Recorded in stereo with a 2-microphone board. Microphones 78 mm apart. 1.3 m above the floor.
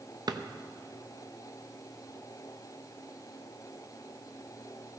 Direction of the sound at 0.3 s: 60° right (ahead or behind).